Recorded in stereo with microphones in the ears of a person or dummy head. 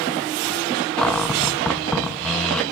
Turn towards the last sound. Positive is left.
turn(degrees=0)  # may be behind; listen again after turning